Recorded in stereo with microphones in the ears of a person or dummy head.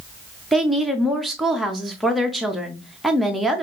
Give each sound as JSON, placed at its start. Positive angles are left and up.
{"t": 0.5, "sound": "a woman speaking", "side_deg": -5, "distance_m": 0.6}